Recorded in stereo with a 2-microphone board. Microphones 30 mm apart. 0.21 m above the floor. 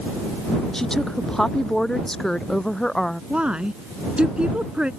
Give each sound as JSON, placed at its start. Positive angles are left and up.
{"t": 0.7, "sound": "a woman speaking", "side_deg": 15}
{"t": 3.3, "sound": "a woman speaking", "side_deg": -40}